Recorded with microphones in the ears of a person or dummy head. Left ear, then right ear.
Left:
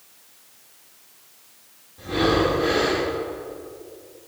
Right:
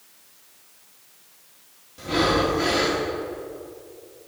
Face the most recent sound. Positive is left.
turn(degrees=-75)  # may be behind; listen again after turning